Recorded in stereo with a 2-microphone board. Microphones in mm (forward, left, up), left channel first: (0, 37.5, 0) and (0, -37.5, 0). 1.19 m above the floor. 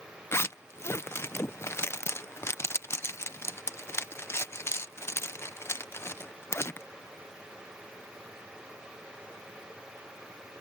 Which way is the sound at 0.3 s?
35° left (ahead or behind).